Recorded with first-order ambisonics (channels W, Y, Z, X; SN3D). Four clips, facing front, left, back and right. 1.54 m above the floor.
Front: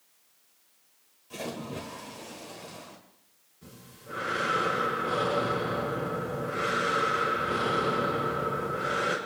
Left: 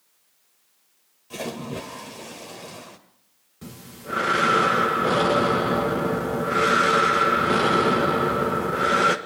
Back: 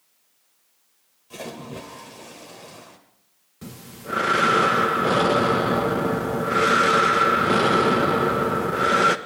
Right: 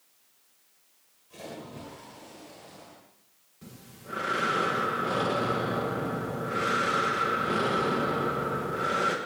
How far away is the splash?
About 1.7 m.